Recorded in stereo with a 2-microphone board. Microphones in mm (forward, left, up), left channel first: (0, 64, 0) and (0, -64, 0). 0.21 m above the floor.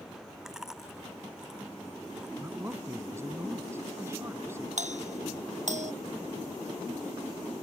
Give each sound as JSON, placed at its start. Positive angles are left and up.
{"t": 0.5, "sound": "chewing", "side_deg": -5}
{"t": 2.4, "sound": "a man speaking", "side_deg": -20}
{"t": 4.8, "sound": "a doorbell", "side_deg": -70}